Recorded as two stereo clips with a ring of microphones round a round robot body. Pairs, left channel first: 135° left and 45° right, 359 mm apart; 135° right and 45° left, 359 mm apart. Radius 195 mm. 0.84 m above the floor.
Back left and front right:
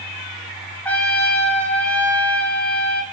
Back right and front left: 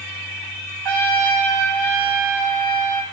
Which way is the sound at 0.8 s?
50° left.